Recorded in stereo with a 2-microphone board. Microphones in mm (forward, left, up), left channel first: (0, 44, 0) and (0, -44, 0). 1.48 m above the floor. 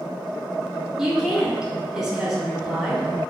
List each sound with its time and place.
1.0 s a woman speaking: 5° right (ahead or behind), 0.6 m